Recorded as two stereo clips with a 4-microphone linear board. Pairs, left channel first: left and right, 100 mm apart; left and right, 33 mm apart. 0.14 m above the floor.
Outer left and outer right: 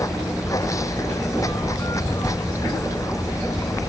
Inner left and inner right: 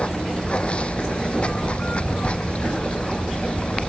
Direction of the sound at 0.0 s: 35° left (ahead or behind).